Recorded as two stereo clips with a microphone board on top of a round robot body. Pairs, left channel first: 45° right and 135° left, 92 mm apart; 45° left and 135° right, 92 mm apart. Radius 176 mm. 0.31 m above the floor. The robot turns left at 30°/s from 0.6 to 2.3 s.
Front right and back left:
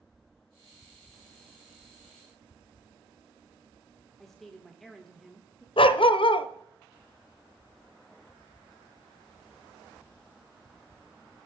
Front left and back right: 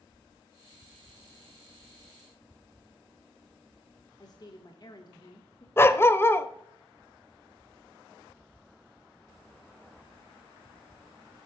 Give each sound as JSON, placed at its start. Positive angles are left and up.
{"t": 4.2, "sound": "a woman speaking", "azimuth_deg": 40, "distance_m": 1.6}
{"t": 5.8, "sound": "a dog barking", "azimuth_deg": -20, "distance_m": 0.7}